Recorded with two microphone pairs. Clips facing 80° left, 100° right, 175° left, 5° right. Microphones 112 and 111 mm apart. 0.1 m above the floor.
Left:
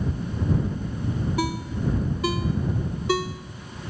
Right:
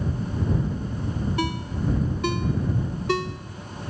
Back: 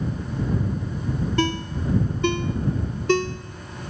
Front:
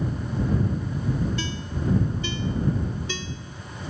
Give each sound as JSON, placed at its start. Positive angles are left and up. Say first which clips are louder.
{"t": 1.4, "sound": "a ringtone", "louder": "even, back 6 dB", "azimuth_deg": 165}